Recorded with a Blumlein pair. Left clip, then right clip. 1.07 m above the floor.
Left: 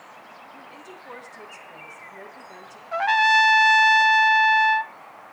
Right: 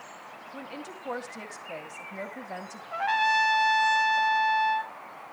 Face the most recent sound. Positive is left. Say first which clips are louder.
# left 6 dB
turn(degrees=20)